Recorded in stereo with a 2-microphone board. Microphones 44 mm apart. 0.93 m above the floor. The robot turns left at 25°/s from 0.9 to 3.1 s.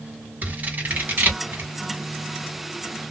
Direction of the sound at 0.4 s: 40° right (ahead or behind).